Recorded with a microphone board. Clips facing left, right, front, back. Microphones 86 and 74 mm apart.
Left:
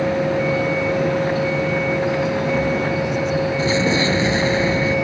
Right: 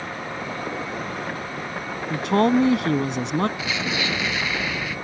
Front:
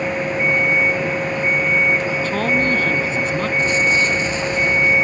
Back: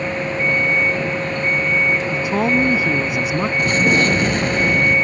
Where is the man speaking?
105° right.